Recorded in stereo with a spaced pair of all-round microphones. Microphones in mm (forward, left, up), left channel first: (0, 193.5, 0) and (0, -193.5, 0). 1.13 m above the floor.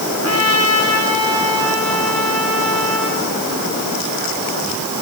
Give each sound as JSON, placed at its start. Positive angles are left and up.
{"t": 0.1, "sound": "a trumpet", "side_deg": -40, "distance_m": 7.5}